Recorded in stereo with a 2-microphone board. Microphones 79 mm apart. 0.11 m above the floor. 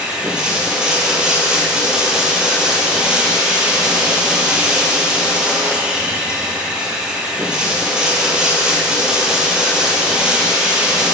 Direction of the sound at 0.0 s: 10° right (ahead or behind).